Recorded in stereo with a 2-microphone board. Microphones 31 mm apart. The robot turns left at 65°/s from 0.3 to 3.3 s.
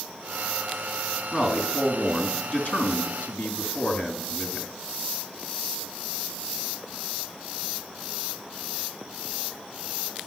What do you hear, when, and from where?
1.3 s a man speaking: 150° right, 2.5 m; by 4.7 s 80° left, 2.5 m